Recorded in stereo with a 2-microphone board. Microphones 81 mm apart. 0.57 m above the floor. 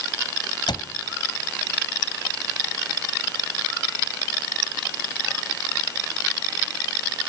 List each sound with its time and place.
0.7 s a cupboard door: 70° left (ahead or behind), 1.3 m